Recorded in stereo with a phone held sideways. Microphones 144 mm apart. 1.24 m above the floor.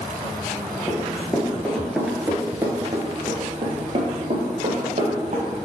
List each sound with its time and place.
0.9 s running footsteps: 20° left (ahead or behind), 1.6 m; by 5.5 s 60° right (ahead or behind), 2.5 m